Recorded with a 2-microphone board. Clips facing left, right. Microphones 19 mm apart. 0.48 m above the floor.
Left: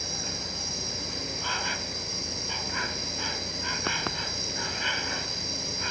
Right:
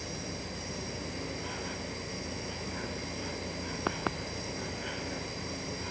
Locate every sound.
0.0 s an insect: 50° left (ahead or behind)